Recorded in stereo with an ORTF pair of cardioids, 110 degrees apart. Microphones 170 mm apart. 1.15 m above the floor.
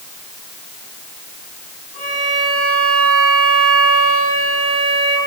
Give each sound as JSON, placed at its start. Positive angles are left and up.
{"t": 1.9, "sound": "a violin", "azimuth_deg": 45, "distance_m": 4.0}